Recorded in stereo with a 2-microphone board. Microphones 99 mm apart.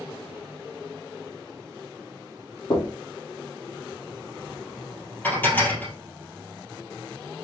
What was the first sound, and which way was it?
Knocking, 65° left (ahead or behind).